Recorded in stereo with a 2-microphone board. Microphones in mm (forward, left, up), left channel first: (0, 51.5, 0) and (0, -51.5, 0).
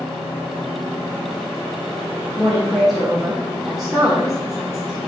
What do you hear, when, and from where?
2.4 s a woman speaking: centre (ahead or behind), 0.9 m